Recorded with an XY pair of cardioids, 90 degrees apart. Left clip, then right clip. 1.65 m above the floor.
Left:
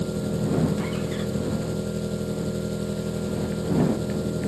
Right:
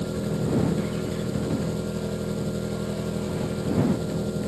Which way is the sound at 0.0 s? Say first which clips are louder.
Left 1 dB; 10° left.